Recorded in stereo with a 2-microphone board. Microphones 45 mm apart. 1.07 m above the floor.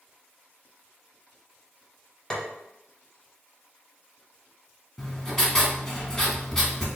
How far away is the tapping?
About 0.7 m.